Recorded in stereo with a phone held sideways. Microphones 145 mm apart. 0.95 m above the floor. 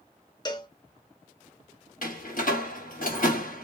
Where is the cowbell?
30° left (ahead or behind), 0.8 m.